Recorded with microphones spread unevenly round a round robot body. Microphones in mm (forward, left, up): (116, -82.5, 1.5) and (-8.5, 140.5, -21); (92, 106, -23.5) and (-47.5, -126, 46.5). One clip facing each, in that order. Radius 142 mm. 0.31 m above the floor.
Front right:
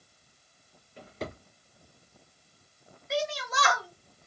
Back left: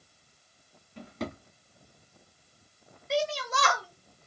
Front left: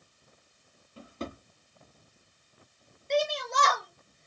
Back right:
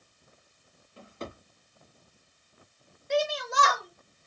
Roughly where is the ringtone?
No ringtone in this recording.